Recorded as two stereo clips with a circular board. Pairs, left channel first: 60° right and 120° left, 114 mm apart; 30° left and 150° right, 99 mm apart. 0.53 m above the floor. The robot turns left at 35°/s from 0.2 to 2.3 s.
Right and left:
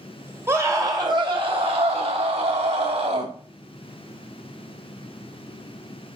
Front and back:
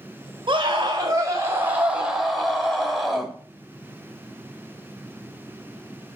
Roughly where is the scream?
Behind.